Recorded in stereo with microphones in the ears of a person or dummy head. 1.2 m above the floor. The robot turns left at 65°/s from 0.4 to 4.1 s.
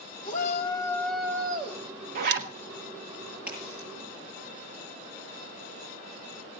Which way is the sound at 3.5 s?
10° right (ahead or behind).